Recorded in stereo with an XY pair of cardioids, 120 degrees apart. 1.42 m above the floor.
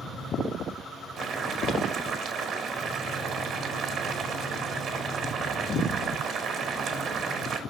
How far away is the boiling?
About 2 m.